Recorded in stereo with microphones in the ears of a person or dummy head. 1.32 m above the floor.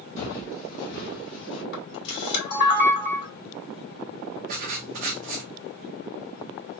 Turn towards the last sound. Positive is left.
turn(degrees=-40)  # may be behind; listen again after turning